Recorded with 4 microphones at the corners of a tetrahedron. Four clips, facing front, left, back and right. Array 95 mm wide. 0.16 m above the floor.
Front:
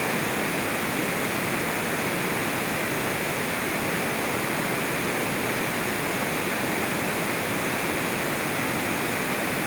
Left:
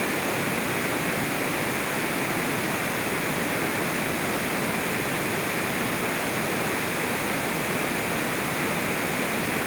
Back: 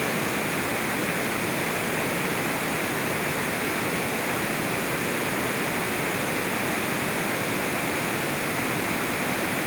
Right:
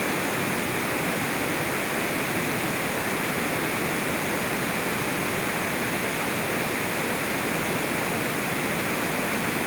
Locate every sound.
Only background noise.